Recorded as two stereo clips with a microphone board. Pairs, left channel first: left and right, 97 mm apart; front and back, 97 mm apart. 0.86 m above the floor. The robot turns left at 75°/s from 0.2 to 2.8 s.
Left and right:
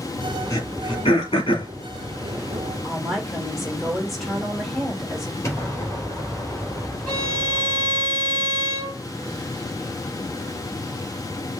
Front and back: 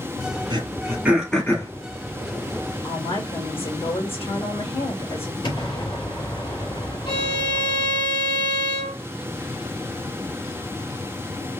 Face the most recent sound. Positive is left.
turn(degrees=5)